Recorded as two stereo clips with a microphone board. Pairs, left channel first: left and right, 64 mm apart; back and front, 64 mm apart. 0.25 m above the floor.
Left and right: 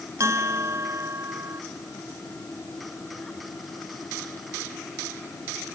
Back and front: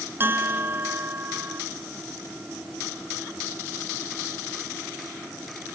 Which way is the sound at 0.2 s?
55° right.